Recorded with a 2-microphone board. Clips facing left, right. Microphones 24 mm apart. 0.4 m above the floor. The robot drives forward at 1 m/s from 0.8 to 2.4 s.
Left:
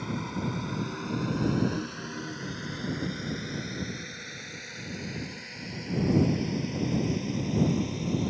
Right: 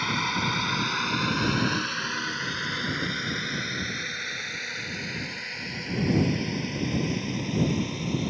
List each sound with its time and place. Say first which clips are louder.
0.0 s a drone: right 7 dB; 65° right (ahead or behind); by 8.3 s 25° right (ahead or behind)